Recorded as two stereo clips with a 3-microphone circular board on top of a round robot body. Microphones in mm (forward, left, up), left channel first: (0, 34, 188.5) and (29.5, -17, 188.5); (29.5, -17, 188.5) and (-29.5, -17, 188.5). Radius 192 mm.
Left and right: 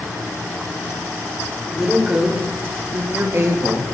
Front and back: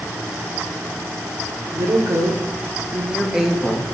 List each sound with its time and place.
1.7 s a woman speaking: 145° right, 1.8 m; by 3.8 s 85° right, 1.4 m